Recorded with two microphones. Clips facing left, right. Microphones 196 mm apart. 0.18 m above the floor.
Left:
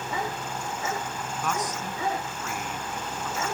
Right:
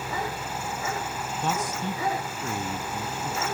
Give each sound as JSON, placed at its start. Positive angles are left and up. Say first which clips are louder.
{"t": 1.4, "sound": "a man speaking", "louder": "right 2 dB", "side_deg": -30}